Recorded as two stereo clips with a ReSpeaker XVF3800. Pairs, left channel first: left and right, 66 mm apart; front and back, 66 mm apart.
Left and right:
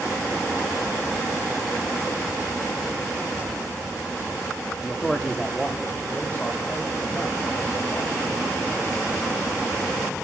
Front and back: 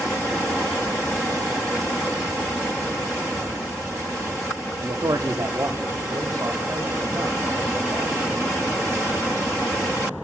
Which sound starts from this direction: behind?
A man speaking, at 4.8 s.